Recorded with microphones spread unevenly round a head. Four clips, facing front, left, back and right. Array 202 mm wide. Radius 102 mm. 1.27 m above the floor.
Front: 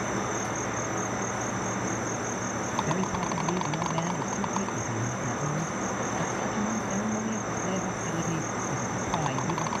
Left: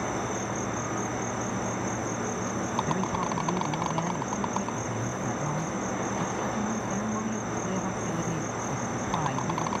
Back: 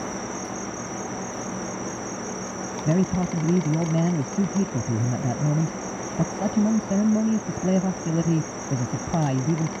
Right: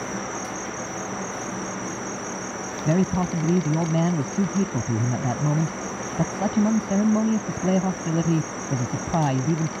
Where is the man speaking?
140° right.